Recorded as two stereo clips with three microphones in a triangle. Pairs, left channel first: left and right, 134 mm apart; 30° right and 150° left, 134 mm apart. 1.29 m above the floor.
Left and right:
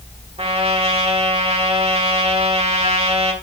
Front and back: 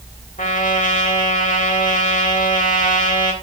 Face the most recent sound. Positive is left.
turn(degrees=-45)